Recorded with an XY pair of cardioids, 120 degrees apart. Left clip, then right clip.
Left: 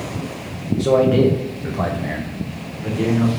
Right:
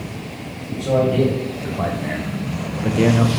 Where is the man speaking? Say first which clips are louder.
Left 3 dB; 45° left, 0.9 m; by 3.3 s 65° right, 0.7 m.